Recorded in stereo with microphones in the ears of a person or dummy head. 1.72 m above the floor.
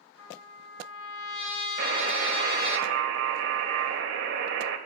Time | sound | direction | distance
0.2 | a trumpet | 80° left | 3.5 m
1.8 | a buzzer | 75° right (ahead or behind) | 2.5 m